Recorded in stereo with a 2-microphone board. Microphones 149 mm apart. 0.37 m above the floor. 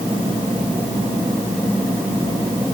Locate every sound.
Only background noise.